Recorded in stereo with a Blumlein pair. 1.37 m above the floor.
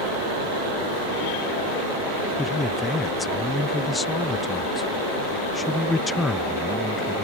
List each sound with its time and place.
2.4 s a man speaking: 10° left